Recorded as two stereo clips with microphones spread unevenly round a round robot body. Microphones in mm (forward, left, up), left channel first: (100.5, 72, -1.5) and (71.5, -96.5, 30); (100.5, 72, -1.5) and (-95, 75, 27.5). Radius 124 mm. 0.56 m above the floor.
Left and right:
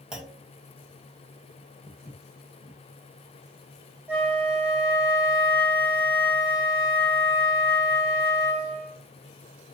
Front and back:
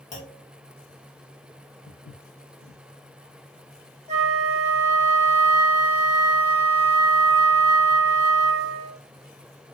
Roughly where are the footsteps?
Ahead.